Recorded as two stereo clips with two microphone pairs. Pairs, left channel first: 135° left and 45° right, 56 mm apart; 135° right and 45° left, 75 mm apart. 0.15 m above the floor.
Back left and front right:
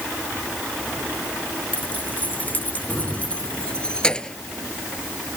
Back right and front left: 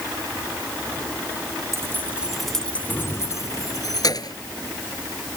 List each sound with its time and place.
1.7 s keys jangling: 80° left; by 4.4 s 150° right